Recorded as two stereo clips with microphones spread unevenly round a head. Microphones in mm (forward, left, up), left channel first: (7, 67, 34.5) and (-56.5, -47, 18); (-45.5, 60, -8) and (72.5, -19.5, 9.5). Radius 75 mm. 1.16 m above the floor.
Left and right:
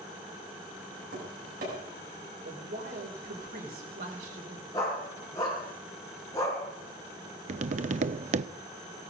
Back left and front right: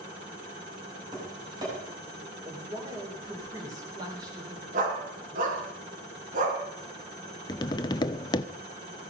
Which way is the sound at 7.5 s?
150° right.